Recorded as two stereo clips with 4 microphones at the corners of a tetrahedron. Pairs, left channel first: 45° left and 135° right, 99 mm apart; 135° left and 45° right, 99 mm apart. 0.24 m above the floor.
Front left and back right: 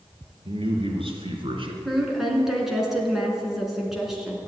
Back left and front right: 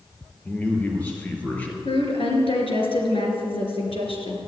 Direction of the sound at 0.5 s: 150° right.